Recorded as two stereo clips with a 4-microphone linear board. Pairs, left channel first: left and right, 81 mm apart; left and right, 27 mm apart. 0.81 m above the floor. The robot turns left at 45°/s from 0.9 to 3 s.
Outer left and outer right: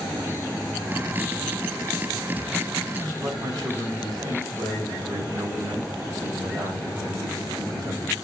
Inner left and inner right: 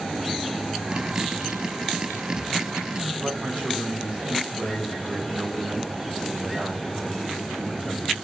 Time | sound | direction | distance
3.0 | a man speaking | 55° right (ahead or behind) | 2.5 m